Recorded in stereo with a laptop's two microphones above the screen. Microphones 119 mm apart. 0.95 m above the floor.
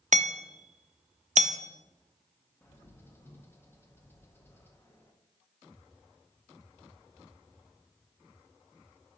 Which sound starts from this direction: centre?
A bird, at 2.6 s.